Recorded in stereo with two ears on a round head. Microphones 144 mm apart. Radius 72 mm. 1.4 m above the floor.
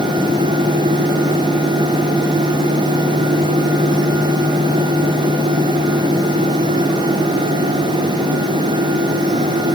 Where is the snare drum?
I don't hear a snare drum.